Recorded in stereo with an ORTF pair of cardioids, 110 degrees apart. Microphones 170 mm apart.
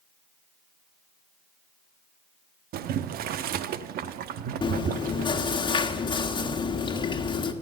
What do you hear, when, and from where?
2.7 s boiling: 65° right, 0.8 m
4.6 s chewing: 30° left, 1.6 m